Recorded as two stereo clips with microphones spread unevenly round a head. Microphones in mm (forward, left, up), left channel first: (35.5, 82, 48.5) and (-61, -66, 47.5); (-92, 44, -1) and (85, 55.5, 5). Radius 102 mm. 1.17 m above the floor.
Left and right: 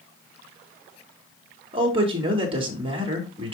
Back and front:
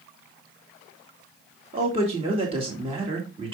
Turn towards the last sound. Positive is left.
turn(degrees=-60)